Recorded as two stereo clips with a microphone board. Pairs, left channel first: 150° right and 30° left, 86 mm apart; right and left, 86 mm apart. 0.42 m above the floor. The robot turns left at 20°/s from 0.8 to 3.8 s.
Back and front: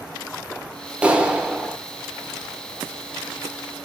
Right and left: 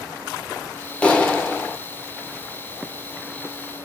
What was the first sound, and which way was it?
A clap, 30° right.